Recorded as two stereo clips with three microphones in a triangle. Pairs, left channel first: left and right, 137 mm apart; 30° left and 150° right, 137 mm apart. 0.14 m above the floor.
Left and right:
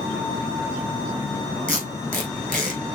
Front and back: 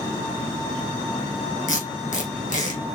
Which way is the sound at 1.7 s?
10° left.